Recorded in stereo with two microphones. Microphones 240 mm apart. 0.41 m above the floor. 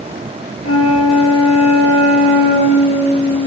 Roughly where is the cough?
I don't hear a cough.